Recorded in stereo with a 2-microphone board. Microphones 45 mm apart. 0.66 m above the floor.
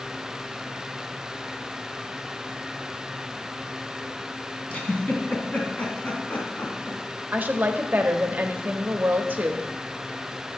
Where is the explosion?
I don't hear an explosion.